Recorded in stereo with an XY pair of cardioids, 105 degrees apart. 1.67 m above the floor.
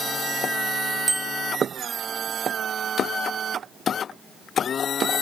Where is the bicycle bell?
25° right, 2.5 m.